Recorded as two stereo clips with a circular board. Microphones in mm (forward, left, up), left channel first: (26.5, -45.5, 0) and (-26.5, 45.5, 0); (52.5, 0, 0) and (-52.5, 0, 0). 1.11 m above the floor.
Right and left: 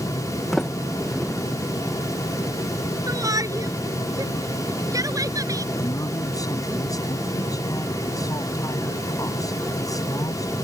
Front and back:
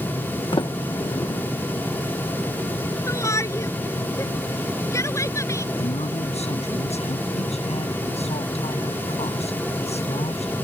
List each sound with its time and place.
0.5 s a sliding door: 25° left
3.1 s a shout: 65° left
5.8 s a man speaking: 5° right